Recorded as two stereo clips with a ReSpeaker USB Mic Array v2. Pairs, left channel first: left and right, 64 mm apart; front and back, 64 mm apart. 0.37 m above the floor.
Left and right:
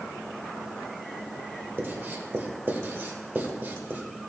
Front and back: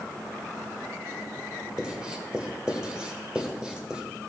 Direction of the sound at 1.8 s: 115° right.